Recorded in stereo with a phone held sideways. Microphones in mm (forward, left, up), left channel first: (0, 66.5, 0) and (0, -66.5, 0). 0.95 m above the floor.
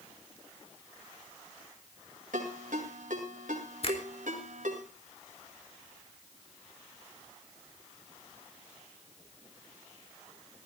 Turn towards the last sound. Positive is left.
turn(degrees=50)  # may be behind; listen again after turning